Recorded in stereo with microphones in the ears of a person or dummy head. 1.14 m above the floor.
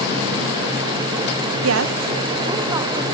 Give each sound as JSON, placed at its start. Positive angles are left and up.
{"t": 1.6, "sound": "a woman speaking", "side_deg": -80, "distance_m": 0.5}